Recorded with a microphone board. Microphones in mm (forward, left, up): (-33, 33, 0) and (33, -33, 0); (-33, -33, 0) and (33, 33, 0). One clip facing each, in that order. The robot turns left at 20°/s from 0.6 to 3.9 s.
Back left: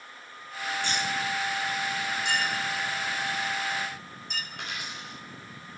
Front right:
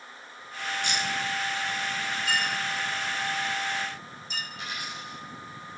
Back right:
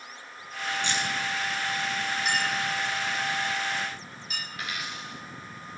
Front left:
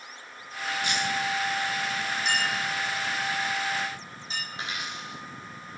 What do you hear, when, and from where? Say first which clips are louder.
0.8 s keys jangling: even, front left 2 dB; 175° left, 1.3 m; by 1.1 s 170° left, 1.3 m
2.2 s a clink: front right 1 dB, even; 140° left, 5 m; by 4.4 s 105° left, 5 m
4.5 s a dropped coin: front right 1 dB, back right 1 dB; 110° left, 4 m